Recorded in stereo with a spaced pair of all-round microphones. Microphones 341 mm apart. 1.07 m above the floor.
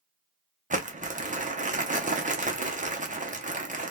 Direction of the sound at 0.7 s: 25° right (ahead or behind).